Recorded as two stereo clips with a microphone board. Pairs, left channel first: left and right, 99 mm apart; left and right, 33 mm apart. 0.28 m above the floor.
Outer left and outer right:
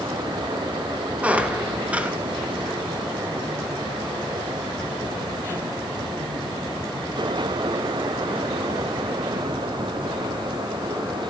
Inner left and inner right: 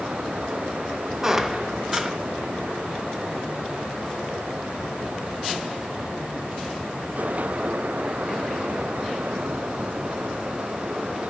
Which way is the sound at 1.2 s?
15° right (ahead or behind).